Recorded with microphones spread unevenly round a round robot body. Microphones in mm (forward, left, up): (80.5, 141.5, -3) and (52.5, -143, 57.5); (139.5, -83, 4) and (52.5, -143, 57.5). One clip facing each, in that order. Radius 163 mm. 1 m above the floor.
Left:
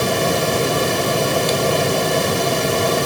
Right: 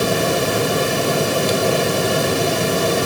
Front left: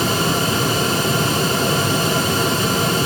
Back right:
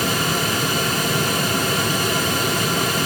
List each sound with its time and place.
Only background noise.